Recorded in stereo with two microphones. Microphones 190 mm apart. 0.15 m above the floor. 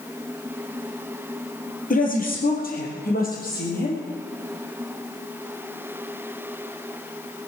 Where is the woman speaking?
45° left (ahead or behind), 3 m; by 4.0 s 50° left (ahead or behind), 4.5 m.